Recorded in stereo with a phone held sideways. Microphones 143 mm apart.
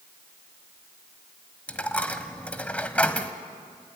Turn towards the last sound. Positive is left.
turn(degrees=10)  # may be behind; listen again after turning